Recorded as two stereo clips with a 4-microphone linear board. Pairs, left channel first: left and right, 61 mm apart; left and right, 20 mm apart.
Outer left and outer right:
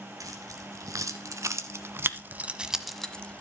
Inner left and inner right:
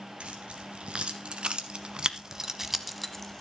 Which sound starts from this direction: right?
Keys jangling, at 0.2 s.